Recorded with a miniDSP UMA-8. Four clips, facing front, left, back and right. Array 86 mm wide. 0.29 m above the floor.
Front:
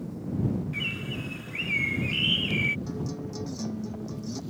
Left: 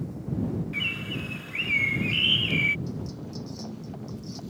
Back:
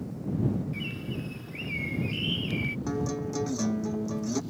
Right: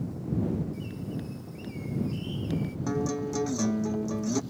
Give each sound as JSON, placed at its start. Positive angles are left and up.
{"t": 0.7, "sound": "a bird", "azimuth_deg": 65}
{"t": 2.9, "sound": "a guitar", "azimuth_deg": -120}